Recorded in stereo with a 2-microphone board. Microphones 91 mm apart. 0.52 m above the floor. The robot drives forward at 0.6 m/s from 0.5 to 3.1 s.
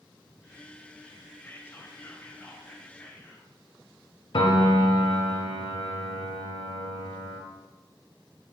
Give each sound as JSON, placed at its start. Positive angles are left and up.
{"t": 1.4, "sound": "whispering", "side_deg": 25, "distance_m": 1.8}
{"t": 4.3, "sound": "a piano", "side_deg": 65, "distance_m": 1.2}